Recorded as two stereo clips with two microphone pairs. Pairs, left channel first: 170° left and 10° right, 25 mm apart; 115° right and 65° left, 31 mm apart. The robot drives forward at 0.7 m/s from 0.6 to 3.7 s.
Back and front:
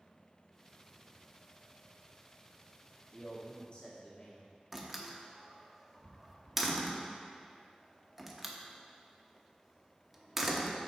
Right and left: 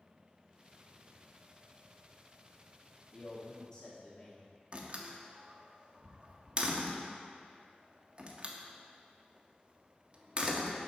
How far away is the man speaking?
About 1.0 m.